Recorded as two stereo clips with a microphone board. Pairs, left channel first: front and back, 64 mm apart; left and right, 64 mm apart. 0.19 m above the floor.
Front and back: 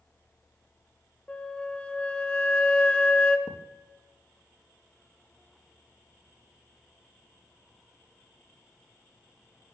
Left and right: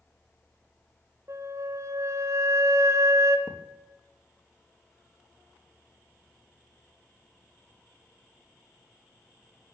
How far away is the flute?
About 1.5 m.